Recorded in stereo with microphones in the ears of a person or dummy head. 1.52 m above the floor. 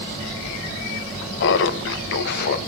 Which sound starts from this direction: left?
Laughter, at 1.4 s.